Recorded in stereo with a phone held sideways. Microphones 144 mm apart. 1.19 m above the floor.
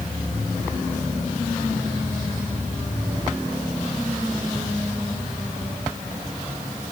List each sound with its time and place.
Only background noise.